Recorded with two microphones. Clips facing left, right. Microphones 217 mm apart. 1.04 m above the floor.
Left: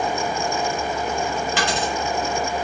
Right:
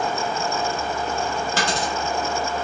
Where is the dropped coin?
40° right (ahead or behind), 1.7 m.